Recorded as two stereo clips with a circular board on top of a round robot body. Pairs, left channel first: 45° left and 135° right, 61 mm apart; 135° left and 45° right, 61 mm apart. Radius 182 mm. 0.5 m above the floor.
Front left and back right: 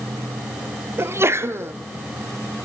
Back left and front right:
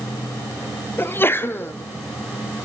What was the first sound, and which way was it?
A sneeze, 175° right.